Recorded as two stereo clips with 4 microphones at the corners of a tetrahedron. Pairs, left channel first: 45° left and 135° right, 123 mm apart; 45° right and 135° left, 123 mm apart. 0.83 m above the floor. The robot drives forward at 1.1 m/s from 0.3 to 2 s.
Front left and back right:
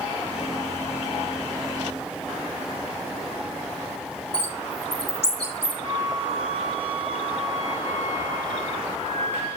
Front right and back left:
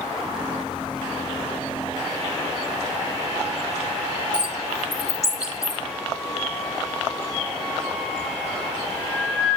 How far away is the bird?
About 1.7 m.